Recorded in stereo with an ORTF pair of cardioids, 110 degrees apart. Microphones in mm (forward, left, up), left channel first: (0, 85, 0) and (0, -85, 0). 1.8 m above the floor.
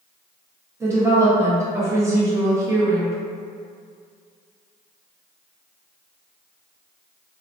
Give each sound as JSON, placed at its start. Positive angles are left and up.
{"t": 0.8, "sound": "a woman speaking", "azimuth_deg": -15, "distance_m": 1.2}